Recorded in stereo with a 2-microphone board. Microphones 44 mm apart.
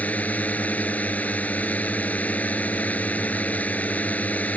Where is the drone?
35° left (ahead or behind).